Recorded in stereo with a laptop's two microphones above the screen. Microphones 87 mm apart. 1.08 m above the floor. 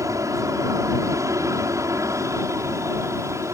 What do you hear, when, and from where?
0.0 s an aircraft: 40° right (ahead or behind); by 3.5 s 35° right (ahead or behind)